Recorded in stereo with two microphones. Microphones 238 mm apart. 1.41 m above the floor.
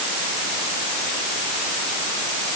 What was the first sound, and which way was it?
Only background noise.